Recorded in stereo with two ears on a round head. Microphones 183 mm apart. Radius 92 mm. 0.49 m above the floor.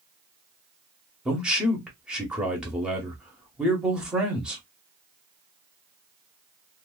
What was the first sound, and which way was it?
A man speaking, 5° right (ahead or behind).